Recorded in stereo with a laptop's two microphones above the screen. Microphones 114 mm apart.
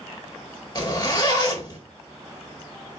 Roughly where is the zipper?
Left.